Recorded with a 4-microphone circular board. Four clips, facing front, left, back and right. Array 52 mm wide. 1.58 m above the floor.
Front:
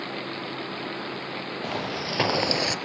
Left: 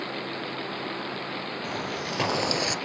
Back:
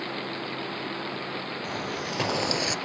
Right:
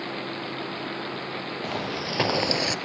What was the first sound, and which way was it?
Footsteps, 35° right.